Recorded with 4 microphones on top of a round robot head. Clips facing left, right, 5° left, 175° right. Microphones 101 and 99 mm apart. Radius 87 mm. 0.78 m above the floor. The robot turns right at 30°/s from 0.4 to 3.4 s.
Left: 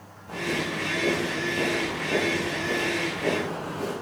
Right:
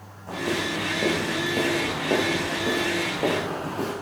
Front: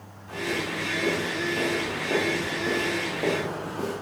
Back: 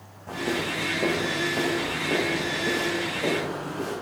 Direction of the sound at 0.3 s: 130° right.